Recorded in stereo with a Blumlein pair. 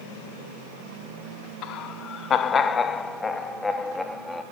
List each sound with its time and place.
1.6 s laughter: 40° left, 1.2 m; by 4.4 s 5° left, 3 m